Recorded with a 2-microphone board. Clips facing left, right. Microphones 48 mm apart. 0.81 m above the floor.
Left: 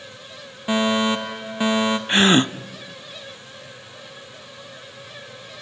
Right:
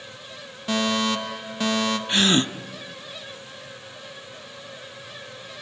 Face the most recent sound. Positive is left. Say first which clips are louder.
# left 5 dB
turn(degrees=30)  # may be behind; listen again after turning